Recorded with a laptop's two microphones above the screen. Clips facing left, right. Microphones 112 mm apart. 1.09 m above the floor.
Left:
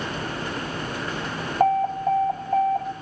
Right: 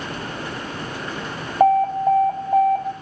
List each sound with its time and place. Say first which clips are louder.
1.6 s an alarm: right 5 dB; 10° right (ahead or behind), 3.5 m